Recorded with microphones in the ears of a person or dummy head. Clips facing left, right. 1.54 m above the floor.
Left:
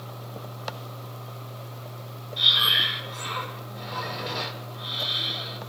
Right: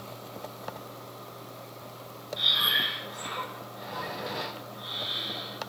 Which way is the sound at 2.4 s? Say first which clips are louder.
Left 2 dB; centre (ahead or behind).